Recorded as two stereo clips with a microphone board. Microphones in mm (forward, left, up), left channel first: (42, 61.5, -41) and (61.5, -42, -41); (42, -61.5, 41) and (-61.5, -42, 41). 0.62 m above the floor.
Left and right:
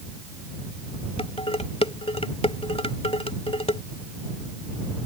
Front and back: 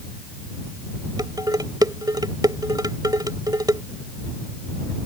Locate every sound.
1.2 s dishes clattering: 120° left